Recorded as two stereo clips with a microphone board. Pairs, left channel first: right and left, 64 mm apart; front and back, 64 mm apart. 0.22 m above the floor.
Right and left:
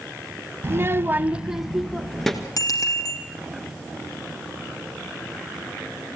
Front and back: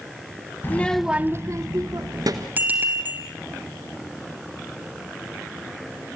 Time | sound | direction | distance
0.6 | a child speaking | 50° left | 0.9 m
2.6 | a bicycle bell | 120° right | 5 m